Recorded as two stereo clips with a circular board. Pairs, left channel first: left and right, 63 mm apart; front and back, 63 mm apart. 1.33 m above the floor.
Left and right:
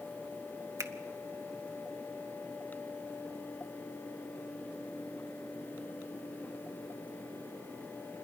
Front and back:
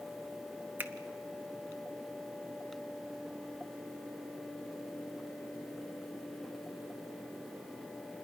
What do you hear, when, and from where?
0.8 s a finger snap: 125° right, 1.1 m